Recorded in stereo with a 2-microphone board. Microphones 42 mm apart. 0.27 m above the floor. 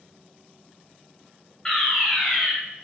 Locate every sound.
1.6 s a fire alarm: 15° left (ahead or behind), 1.9 m